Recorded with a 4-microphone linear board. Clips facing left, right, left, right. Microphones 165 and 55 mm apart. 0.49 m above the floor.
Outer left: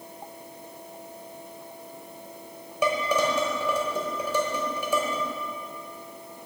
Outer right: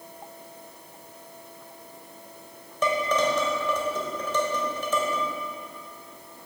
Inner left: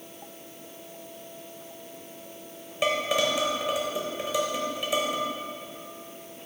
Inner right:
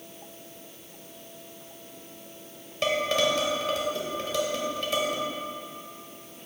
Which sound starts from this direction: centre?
Dishes clattering, at 2.8 s.